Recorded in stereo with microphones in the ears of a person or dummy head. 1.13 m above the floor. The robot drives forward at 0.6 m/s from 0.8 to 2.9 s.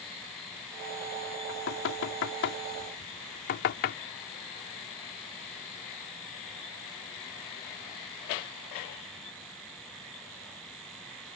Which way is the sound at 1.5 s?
75° left (ahead or behind).